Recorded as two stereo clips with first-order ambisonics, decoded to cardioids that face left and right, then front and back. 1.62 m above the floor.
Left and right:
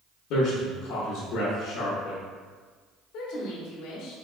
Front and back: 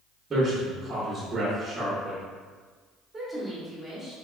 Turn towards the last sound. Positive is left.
turn(degrees=100)